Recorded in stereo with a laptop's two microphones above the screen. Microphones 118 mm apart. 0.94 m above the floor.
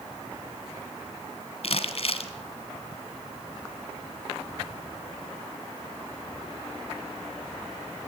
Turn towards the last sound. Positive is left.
turn(degrees=55)  # may be behind; listen again after turning